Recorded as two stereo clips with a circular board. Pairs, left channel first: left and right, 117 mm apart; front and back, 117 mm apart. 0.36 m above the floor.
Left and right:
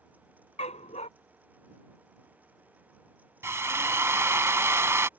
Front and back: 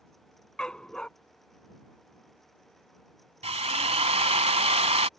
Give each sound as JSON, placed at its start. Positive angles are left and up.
{"t": 0.6, "sound": "a dog barking", "azimuth_deg": 85}
{"t": 3.4, "sound": "a drill", "azimuth_deg": -155}